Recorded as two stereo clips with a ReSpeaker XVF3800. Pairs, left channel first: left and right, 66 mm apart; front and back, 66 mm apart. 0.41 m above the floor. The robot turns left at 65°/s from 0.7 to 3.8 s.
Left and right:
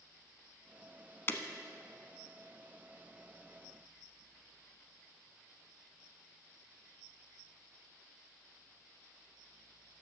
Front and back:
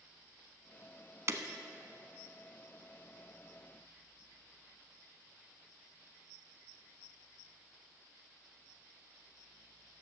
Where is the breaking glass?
140° left, 0.8 m; by 1.4 s 130° left, 0.8 m.